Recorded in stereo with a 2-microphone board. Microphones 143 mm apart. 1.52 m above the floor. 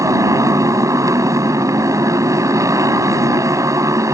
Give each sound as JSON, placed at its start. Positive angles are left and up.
{"t": 0.0, "sound": "a motorcycle", "side_deg": -25}